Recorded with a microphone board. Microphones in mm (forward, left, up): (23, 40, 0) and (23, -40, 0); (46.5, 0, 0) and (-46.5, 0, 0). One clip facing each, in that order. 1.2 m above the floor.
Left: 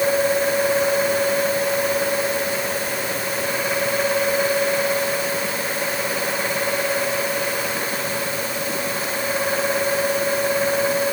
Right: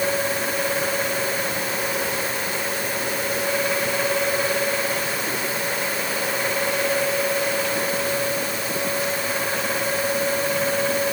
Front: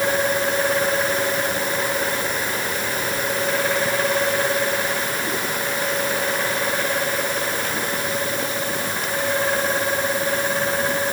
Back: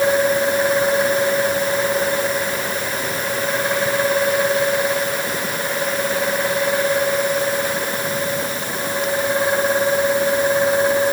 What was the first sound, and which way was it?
Only background noise.